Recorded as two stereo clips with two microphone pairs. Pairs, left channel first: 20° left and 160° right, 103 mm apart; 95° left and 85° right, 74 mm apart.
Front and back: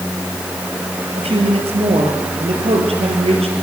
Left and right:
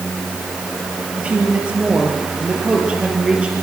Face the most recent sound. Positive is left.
turn(degrees=-160)